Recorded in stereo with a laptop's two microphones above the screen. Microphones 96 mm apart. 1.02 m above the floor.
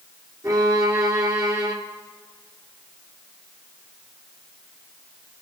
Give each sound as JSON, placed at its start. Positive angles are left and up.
{"t": 0.4, "sound": "a violin", "side_deg": -35, "distance_m": 2.0}